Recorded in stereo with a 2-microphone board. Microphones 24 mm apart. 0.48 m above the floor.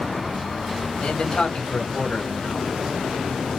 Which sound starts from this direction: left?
A man speaking, at 1.0 s.